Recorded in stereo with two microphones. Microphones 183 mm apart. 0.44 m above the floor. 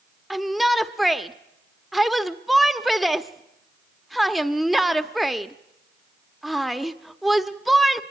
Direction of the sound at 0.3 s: Centre (ahead or behind).